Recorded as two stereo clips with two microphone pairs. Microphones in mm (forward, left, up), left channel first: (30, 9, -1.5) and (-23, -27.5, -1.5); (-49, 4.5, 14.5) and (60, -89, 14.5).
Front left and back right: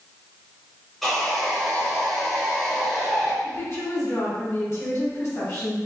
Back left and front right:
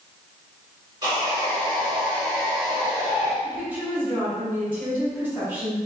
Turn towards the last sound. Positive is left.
turn(degrees=30)